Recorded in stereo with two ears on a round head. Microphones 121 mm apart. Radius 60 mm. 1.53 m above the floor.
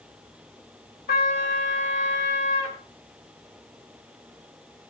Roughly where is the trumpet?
Left.